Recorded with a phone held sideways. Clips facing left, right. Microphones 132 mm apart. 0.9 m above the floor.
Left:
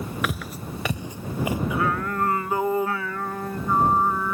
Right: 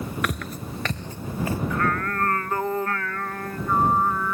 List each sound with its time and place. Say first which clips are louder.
0.2 s footsteps: even; centre (ahead or behind); by 1.6 s 15° left (ahead or behind)
1.7 s singing: even; 10° left (ahead or behind)